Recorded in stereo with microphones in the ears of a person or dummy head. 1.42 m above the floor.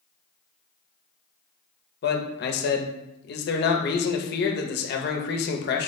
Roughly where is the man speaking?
Left.